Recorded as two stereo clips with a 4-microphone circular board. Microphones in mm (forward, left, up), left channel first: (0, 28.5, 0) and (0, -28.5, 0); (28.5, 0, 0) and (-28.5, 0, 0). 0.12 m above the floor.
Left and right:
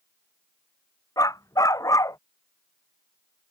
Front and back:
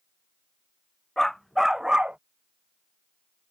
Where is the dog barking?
85° left; by 2.2 s 110° left.